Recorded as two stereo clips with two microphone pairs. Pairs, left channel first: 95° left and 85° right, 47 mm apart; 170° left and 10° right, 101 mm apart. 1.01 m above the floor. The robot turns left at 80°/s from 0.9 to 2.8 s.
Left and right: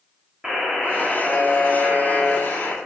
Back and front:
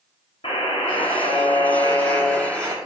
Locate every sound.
0.4 s a buzzer: 160° right, 3 m; by 2.8 s 50° left, 3 m